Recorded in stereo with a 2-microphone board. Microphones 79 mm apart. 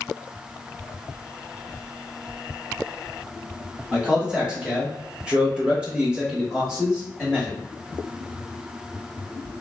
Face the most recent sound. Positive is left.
turn(degrees=0)  # may be behind; listen again after turning